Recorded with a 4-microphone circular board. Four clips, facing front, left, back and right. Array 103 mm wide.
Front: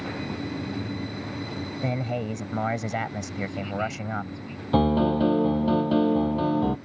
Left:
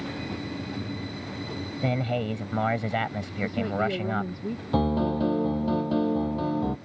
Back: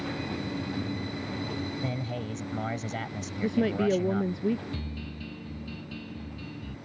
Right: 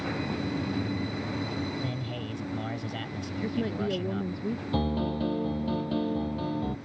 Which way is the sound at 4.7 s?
10° left.